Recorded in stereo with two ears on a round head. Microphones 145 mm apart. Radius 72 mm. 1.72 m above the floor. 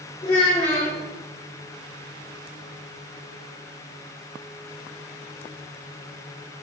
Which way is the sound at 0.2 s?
40° left (ahead or behind).